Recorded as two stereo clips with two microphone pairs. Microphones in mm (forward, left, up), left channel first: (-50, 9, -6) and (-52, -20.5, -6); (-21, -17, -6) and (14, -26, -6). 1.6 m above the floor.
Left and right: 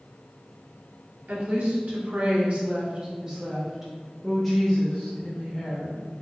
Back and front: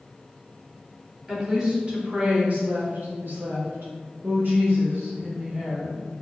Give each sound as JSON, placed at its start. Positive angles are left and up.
{"t": 1.3, "sound": "a woman speaking", "azimuth_deg": -90, "distance_m": 1.3}